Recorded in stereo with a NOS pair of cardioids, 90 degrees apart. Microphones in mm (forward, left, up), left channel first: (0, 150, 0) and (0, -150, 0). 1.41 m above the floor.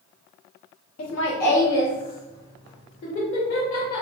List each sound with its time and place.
1.0 s laughter: 60° left, 1.1 m; by 4.0 s 65° left, 2.5 m